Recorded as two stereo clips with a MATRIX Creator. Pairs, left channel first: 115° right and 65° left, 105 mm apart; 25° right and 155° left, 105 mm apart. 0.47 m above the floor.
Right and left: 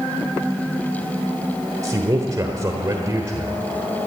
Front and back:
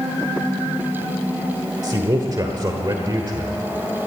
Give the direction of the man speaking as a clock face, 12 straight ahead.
8 o'clock.